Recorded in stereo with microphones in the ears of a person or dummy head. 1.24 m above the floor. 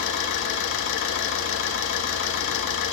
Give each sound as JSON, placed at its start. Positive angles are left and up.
{"t": 0.0, "sound": "an engine running", "side_deg": 65, "distance_m": 1.6}